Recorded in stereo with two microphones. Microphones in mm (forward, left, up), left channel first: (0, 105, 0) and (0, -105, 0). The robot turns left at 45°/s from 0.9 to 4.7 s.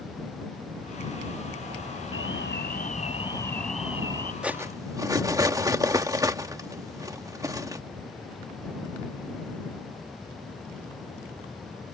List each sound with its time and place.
2.1 s an alarm: 75° left; by 4.3 s 25° right
4.4 s cutlery clinking: 5° right (ahead or behind); by 7.8 s 15° right (ahead or behind)